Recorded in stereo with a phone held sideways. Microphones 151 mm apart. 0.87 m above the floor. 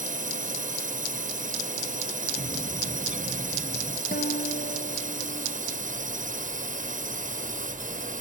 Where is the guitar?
70° left (ahead or behind).